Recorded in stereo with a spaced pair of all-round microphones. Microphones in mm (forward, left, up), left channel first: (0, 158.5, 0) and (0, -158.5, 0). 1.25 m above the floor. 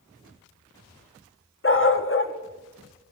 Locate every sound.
1.6 s a dog barking: 40° left (ahead or behind), 0.8 m